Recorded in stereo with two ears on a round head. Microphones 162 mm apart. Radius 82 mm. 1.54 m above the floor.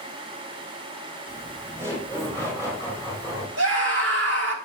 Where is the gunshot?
I don't hear a gunshot.